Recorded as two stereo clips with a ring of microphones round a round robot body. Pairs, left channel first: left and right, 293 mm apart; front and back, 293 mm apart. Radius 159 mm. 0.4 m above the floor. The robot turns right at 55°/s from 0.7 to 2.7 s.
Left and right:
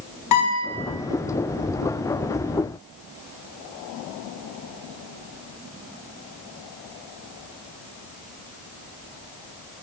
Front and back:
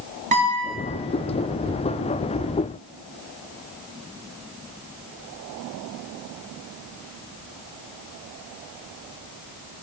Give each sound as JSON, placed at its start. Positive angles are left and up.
{"t": 0.3, "sound": "a guitar", "azimuth_deg": 115, "distance_m": 3.5}